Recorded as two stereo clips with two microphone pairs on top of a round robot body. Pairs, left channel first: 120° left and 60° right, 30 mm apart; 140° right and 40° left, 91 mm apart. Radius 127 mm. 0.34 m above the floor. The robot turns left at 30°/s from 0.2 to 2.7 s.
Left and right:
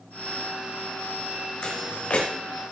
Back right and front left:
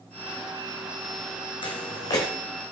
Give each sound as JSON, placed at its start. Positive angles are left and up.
{"t": 1.6, "sound": "footsteps", "azimuth_deg": 180, "distance_m": 1.7}